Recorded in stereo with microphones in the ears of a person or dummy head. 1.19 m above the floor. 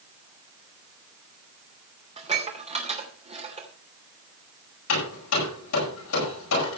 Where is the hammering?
75° left (ahead or behind), 8.5 m.